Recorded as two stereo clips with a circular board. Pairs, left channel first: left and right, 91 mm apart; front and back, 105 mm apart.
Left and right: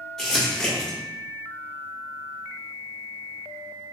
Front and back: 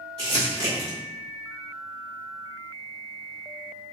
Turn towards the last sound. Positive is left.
turn(degrees=175)